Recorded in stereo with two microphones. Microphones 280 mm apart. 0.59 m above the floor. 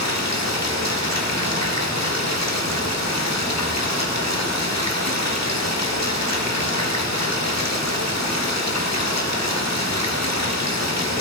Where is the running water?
70° left (ahead or behind), 1.6 m.